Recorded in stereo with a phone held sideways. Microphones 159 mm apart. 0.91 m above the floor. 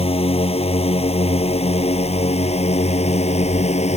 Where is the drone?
40° left (ahead or behind); by 4.0 s 45° left (ahead or behind).